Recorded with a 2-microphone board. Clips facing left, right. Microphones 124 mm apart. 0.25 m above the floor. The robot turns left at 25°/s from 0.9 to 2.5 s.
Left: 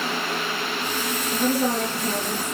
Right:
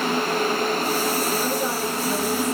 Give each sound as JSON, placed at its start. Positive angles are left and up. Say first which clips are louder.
{"t": 1.3, "sound": "a woman speaking", "louder": "left 2 dB", "side_deg": 70, "distance_m": 4.0}